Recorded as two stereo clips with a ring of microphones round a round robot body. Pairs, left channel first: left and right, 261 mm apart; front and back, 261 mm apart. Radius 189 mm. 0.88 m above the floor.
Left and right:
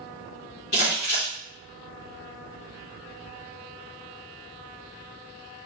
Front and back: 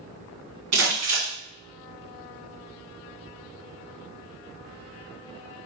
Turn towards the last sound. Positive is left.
turn(degrees=160)